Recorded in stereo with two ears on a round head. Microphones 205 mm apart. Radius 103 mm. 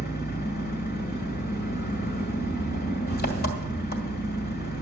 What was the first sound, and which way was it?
An engine running, 40° left (ahead or behind).